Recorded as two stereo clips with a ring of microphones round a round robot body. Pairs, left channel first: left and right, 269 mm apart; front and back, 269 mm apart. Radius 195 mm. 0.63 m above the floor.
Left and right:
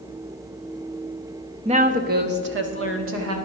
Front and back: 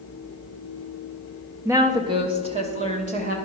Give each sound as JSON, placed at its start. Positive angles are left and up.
{"t": 1.6, "sound": "a woman speaking", "azimuth_deg": -115, "distance_m": 0.9}